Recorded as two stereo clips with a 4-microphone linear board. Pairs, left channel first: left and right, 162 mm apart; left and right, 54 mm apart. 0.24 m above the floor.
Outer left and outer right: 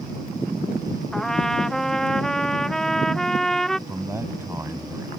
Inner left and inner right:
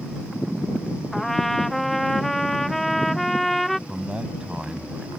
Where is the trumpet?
5° left (ahead or behind).